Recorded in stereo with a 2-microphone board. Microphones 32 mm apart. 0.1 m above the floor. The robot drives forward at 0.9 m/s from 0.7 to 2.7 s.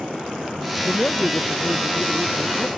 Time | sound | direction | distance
0.9 | a man speaking | 50° left (ahead or behind) | ?